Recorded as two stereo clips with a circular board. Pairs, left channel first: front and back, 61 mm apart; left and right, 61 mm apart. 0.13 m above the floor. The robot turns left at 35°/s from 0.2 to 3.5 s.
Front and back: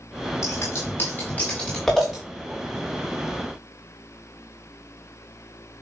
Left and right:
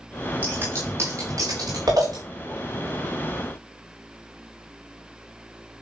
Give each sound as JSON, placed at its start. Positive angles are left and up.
{"t": 0.4, "sound": "scissors", "azimuth_deg": -30, "distance_m": 8.5}